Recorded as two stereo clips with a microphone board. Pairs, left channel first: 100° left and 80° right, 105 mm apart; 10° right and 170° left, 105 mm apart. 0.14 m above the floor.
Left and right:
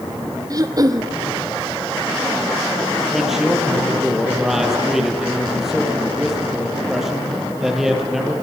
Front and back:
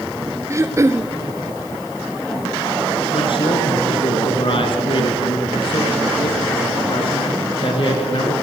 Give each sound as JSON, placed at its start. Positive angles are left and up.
{"t": 0.5, "sound": "throat clearing", "azimuth_deg": -130, "distance_m": 1.2}
{"t": 3.1, "sound": "a man speaking", "azimuth_deg": 5, "distance_m": 3.5}